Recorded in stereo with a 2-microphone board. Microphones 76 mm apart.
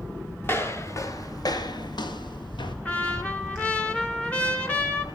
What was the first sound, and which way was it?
Footsteps, 30° left (ahead or behind).